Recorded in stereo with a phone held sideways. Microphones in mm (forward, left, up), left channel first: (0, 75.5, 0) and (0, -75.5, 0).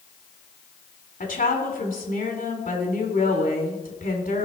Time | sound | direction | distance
1.2 | a woman speaking | 65° left (ahead or behind) | 2.5 m